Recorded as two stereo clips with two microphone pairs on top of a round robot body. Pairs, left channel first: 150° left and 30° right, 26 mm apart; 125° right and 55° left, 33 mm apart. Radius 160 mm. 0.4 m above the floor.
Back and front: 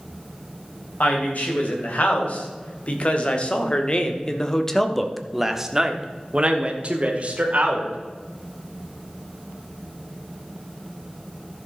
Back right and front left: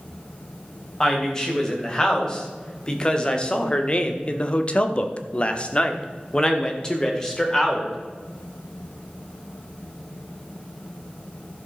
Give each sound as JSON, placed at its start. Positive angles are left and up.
{"t": 1.0, "sound": "a woman speaking", "azimuth_deg": 165, "distance_m": 3.5}